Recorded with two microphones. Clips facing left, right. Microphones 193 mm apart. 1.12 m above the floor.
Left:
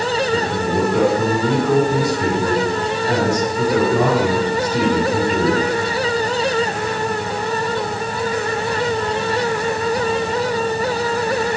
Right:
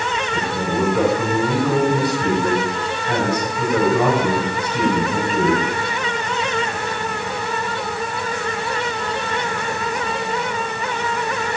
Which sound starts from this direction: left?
A man speaking, at 0.3 s.